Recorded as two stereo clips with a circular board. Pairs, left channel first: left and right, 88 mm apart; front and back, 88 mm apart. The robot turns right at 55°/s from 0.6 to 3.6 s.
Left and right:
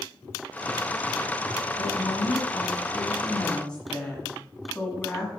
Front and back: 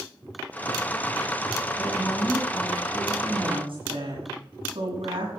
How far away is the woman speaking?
About 7.5 m.